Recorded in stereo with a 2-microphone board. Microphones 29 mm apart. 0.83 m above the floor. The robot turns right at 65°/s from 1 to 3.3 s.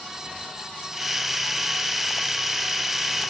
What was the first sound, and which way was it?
Only background noise.